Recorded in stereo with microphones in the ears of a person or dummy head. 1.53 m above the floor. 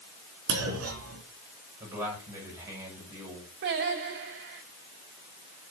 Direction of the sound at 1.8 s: 15° right (ahead or behind).